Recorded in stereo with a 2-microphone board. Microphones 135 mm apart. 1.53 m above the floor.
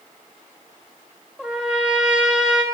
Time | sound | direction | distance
1.4 | a trumpet | 5° right (ahead or behind) | 1.5 m